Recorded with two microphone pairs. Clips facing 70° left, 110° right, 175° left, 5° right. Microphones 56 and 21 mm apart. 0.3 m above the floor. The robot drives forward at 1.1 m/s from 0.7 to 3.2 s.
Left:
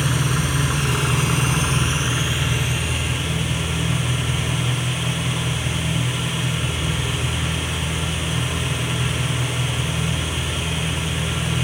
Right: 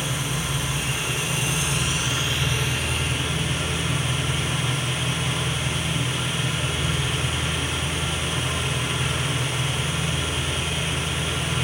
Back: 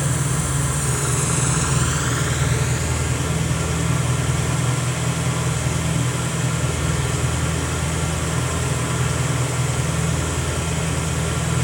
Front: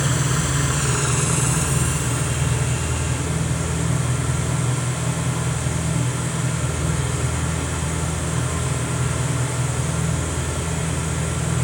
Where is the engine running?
55° left, 1.2 m; by 11.6 s 155° left, 2.5 m.